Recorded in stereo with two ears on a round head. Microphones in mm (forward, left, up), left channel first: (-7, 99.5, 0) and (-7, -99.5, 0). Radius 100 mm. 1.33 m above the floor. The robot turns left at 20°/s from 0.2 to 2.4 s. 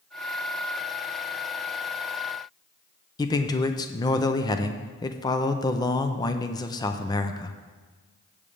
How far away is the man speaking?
About 0.6 m.